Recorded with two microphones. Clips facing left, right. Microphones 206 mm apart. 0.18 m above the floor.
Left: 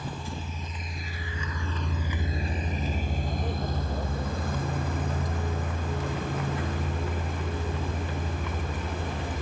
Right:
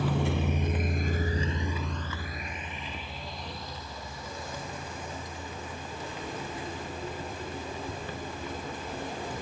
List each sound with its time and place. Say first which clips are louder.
0.0 s a vehicle: right 8 dB; 75° right (ahead or behind); by 9.4 s 70° left (ahead or behind)